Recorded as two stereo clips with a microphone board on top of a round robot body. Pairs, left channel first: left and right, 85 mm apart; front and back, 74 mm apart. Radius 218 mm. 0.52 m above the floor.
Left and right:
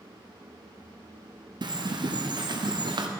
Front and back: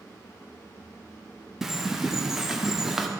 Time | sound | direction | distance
1.6 | a bird | 95° right | 1.4 m